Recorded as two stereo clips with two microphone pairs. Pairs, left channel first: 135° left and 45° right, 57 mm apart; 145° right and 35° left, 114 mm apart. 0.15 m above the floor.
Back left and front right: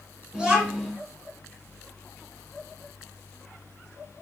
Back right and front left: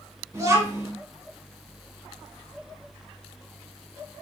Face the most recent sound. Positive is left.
turn(degrees=10)